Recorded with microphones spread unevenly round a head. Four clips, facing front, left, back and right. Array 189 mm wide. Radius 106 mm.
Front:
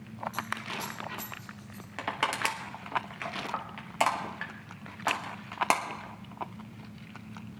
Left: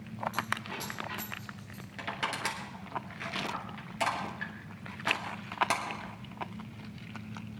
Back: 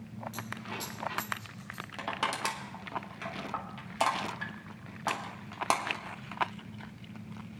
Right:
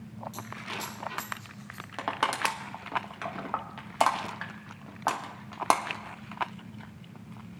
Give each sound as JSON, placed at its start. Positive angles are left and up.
{"t": 0.3, "sound": "a dropped coin", "azimuth_deg": 145, "distance_m": 4.5}
{"t": 2.0, "sound": "crushing", "azimuth_deg": -110, "distance_m": 0.9}